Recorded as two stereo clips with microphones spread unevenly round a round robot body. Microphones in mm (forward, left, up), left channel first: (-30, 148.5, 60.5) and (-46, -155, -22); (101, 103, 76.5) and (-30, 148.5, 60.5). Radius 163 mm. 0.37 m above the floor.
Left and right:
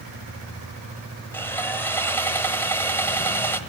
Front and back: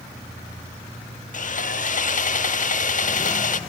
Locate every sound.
1.3 s sawing: 5° right, 1.1 m